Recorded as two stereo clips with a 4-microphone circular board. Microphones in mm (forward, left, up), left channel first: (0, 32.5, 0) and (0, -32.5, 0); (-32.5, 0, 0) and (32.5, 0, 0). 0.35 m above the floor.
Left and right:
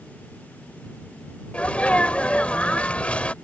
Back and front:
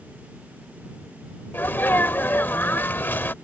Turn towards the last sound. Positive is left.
turn(degrees=145)